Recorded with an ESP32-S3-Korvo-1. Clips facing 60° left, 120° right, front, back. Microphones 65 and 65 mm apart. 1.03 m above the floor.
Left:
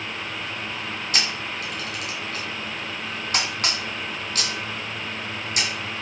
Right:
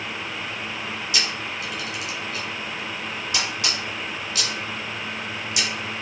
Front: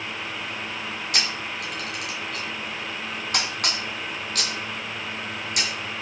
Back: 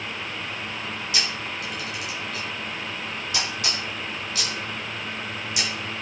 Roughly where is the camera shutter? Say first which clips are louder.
Left 1 dB, front 2 dB; ahead.